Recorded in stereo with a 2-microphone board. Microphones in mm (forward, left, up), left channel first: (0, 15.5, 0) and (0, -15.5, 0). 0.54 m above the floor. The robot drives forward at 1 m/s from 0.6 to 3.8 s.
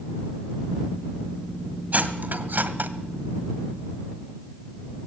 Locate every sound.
1.9 s cutlery clinking: 60° right (ahead or behind), 1.8 m; by 2.9 s 85° right, 1.5 m